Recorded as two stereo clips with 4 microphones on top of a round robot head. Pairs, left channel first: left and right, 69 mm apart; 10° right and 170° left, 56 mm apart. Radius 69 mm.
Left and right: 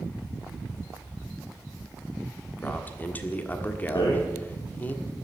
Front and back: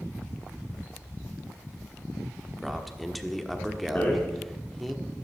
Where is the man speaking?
80° left, 1.5 m.